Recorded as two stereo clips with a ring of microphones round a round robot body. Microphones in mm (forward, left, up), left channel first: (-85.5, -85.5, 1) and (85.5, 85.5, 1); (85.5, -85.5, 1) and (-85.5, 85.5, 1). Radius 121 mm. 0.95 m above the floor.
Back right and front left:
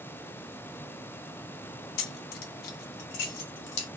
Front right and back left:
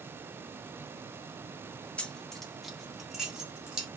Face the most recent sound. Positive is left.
turn(degrees=-140)